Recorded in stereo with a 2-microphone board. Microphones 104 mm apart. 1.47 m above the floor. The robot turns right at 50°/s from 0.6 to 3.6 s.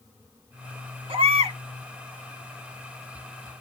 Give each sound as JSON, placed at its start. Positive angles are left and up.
{"t": 1.1, "sound": "a baby crying", "side_deg": -50, "distance_m": 1.3}